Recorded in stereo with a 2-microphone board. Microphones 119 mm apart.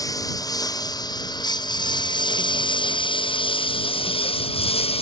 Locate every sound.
0.0 s a lawn mower: 30° left (ahead or behind); by 5.0 s 50° left (ahead or behind)